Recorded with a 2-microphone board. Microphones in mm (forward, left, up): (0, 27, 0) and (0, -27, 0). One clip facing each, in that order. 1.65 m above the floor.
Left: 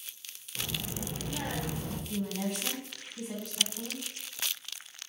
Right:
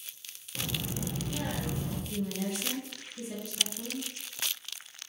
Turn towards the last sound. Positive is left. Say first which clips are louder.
# left 1 dB
turn(degrees=60)  # may be behind; listen again after turning